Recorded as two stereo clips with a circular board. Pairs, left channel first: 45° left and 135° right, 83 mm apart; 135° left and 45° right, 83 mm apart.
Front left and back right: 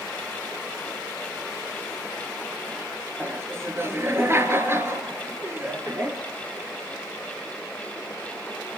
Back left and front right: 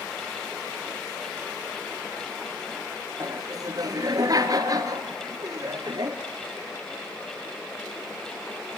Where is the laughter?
80° right, 3 m.